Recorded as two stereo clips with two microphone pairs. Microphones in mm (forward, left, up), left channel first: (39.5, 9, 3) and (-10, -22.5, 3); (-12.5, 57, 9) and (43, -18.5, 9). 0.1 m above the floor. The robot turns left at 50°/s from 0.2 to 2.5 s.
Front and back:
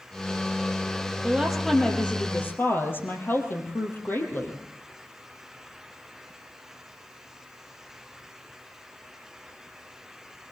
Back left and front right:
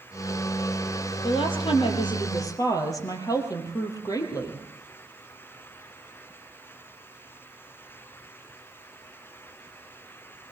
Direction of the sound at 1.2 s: 140° left.